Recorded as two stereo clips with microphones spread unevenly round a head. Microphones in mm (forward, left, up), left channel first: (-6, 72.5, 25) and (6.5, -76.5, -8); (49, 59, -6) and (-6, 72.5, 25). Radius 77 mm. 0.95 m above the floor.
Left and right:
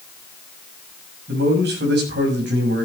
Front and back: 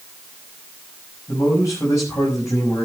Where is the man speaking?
70° right, 6 m.